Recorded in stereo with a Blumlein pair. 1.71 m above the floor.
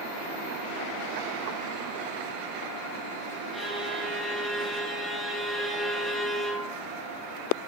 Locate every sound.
3.5 s a violin: straight ahead, 4.5 m